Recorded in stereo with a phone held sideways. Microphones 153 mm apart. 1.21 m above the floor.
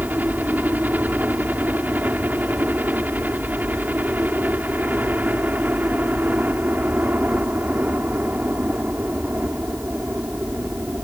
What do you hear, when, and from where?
0.0 s a helicopter: 10° right (ahead or behind)